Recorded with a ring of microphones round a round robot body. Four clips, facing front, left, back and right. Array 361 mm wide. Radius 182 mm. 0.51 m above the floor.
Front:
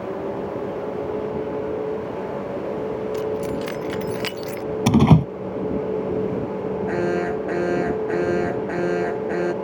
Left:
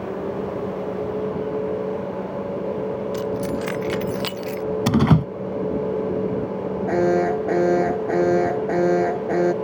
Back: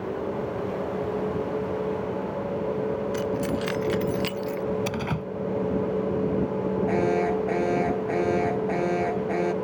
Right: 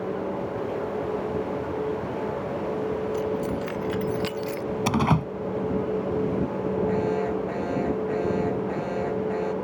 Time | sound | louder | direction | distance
3.1 | keys jangling | left 2 dB, front 2 dB | 110° left | ?
4.9 | a door slam | left 5 dB, front 14 dB | 25° left | ?
6.9 | an alarm | left 6 dB, front 1 dB | 75° left | ?